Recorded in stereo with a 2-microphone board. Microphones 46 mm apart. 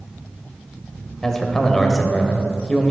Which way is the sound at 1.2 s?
10° left (ahead or behind).